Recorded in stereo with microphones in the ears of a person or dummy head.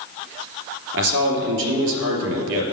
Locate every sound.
0.9 s a man speaking: 75° right (ahead or behind), 3.5 m